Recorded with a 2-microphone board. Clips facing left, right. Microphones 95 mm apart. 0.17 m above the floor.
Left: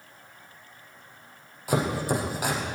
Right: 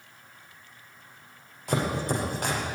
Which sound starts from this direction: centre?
Chopping, at 1.7 s.